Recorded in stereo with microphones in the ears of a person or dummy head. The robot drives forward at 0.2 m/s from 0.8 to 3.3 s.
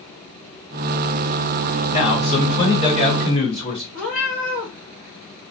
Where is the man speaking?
40° left (ahead or behind), 1.1 m; by 3.8 s 30° left (ahead or behind), 1.3 m.